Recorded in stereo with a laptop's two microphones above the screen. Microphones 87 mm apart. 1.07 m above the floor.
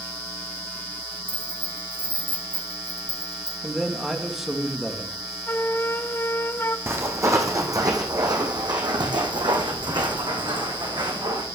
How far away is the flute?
About 0.5 m.